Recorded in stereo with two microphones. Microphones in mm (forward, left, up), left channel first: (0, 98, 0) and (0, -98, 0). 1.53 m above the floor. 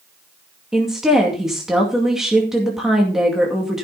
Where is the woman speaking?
Centre (ahead or behind), 2 m.